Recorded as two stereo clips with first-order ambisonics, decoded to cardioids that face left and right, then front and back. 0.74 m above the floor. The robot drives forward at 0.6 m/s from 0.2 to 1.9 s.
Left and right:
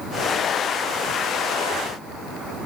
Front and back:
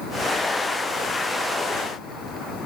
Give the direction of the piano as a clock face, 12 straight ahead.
No piano in this recording.